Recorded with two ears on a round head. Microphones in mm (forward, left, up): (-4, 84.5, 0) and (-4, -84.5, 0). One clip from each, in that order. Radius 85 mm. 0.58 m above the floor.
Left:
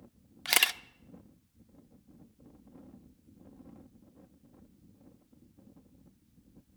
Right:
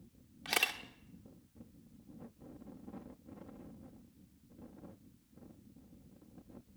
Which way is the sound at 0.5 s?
45° left (ahead or behind).